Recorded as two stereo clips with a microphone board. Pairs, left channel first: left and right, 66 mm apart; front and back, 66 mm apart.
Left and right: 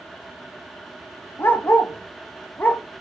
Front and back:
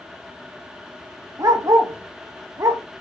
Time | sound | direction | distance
1.4 | a dog barking | 145° left | 0.6 m